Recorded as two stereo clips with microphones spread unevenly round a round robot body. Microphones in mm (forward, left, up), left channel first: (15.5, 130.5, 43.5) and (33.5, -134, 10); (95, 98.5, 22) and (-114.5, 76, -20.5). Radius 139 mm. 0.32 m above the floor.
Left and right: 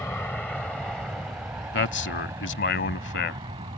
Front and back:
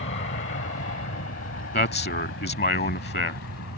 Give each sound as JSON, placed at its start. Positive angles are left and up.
{"t": 0.0, "sound": "an aircraft", "azimuth_deg": 10}
{"t": 1.7, "sound": "a man speaking", "azimuth_deg": 45}